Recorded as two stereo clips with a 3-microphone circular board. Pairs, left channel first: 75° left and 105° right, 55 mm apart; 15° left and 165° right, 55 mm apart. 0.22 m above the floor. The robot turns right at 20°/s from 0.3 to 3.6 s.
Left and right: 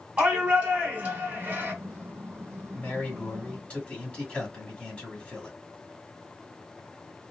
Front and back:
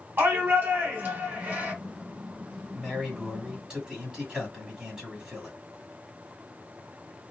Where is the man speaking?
110° left, 1.7 m; by 5.6 s 125° left, 1.7 m.